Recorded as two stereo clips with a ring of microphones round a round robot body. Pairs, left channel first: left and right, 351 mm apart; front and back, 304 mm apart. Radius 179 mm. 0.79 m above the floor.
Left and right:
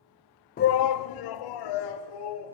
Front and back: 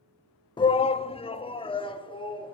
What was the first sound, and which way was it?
A shout, 60° left.